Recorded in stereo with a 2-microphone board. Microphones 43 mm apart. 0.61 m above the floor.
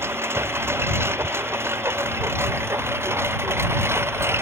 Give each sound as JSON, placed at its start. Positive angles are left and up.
{"t": 0.0, "sound": "a lawn mower", "side_deg": -75}